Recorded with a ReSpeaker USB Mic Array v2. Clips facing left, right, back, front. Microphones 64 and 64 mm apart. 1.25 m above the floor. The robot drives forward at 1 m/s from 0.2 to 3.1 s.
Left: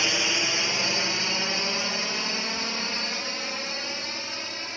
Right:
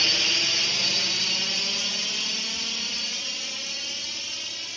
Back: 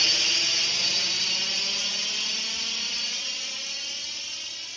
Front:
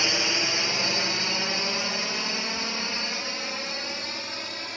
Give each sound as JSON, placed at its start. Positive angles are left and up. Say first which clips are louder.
{"t": 0.0, "sound": "a drone", "louder": "left 2 dB, front 3 dB", "azimuth_deg": 35}